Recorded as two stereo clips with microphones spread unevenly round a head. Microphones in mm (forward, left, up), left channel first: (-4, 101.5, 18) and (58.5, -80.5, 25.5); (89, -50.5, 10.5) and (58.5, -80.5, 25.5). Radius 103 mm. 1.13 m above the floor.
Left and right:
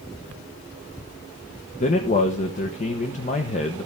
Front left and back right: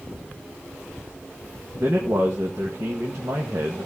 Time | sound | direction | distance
1.8 | a man speaking | 160° left | 1.1 m